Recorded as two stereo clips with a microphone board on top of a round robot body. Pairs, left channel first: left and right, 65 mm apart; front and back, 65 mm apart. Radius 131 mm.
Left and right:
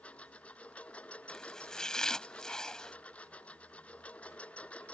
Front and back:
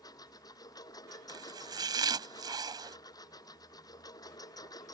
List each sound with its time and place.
0.0 s a lawn mower: 20° left
1.3 s chopping: 170° left